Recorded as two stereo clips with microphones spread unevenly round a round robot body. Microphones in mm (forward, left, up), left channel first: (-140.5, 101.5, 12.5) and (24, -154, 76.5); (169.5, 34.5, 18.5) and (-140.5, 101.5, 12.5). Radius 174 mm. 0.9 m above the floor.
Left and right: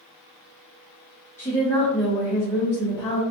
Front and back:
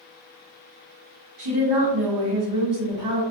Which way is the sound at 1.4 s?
160° right.